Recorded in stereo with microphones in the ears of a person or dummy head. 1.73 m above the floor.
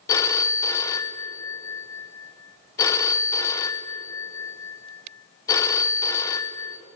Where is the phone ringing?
25° left (ahead or behind), 0.8 m.